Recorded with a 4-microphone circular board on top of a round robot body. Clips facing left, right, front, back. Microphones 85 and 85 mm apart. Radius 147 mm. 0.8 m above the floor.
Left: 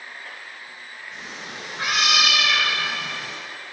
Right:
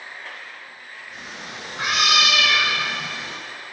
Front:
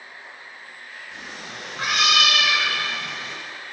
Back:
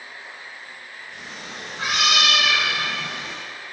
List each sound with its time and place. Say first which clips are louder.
1.1 s a cat meowing: right 1 dB, even; 5° right, 2.0 m; by 3.4 s 145° right, 1.7 m